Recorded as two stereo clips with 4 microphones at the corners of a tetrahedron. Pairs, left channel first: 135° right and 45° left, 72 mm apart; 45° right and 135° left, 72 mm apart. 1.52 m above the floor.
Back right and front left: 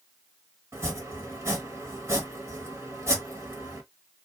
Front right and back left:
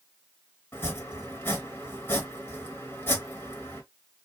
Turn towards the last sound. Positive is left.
turn(degrees=5)